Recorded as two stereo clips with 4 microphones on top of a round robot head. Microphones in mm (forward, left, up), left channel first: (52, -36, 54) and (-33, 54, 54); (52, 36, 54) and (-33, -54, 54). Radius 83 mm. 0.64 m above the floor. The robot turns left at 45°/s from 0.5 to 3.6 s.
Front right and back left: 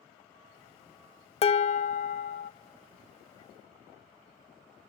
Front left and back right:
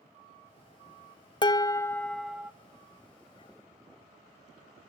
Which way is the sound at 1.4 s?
5° right.